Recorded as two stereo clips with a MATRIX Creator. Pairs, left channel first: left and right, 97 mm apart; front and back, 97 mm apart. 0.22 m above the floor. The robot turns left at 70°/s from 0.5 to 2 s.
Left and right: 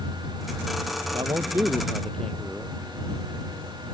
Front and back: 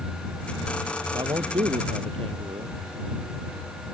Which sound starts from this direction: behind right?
A man speaking, at 1.1 s.